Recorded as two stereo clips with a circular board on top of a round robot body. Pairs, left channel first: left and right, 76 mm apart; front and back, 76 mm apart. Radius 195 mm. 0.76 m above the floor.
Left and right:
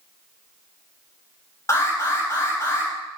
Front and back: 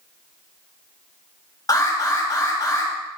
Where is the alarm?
40° left, 8.5 m.